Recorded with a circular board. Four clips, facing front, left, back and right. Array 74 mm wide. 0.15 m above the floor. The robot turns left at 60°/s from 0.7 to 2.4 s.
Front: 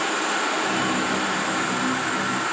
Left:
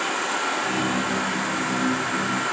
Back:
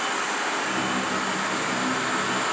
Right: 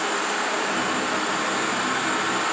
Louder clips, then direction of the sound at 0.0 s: Even, front 3 dB; 5° left.